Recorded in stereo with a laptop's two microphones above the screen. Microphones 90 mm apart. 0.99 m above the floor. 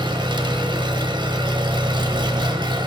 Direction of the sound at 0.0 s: 60° right (ahead or behind).